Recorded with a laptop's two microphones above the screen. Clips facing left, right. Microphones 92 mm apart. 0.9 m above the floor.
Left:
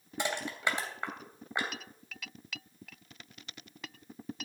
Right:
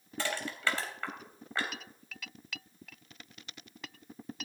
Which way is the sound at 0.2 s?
15° left (ahead or behind).